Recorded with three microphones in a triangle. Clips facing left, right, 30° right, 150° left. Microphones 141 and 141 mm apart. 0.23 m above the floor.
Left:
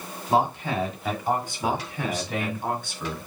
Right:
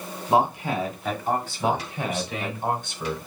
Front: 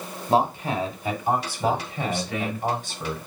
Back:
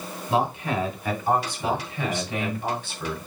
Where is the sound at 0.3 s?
30° right, 2 m; by 2.6 s 95° left, 2.5 m.